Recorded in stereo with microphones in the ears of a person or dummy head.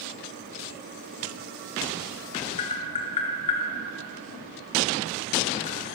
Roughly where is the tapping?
Left.